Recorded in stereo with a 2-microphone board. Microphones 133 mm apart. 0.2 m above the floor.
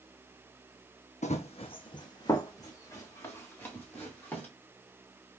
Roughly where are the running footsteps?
Left.